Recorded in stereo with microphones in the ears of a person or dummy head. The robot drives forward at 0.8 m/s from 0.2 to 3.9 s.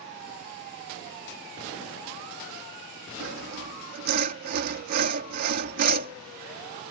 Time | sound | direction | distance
3.2 | sawing | 65° right (ahead or behind) | ?